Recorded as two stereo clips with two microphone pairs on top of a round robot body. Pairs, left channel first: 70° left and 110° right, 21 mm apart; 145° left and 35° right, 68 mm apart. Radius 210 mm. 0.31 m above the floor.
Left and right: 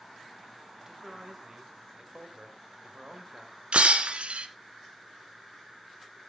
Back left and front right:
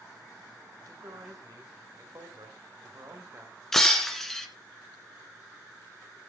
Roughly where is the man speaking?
Ahead right.